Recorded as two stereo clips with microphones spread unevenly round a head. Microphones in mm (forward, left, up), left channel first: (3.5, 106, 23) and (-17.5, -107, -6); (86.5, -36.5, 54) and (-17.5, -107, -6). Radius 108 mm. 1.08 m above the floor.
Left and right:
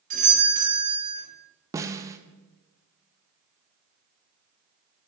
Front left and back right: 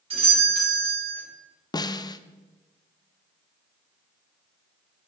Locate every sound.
0.1 s a doorbell: 145° right, 3 m
1.7 s a snare drum: 45° right, 0.6 m